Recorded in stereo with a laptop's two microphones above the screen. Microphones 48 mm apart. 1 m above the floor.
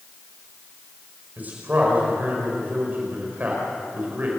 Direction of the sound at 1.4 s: 35° right (ahead or behind).